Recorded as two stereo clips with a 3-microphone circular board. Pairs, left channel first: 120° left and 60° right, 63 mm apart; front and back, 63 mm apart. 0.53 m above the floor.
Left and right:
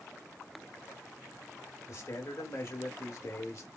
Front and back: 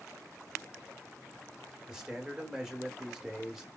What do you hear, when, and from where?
1.9 s a man speaking: 100° left, 1.2 m